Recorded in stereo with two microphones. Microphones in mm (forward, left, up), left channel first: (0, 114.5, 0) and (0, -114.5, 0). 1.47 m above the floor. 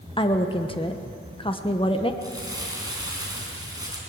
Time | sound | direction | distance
0.2 | a woman speaking | 25° left (ahead or behind) | 1.1 m
2.2 | crumpling | 15° right (ahead or behind) | 4.5 m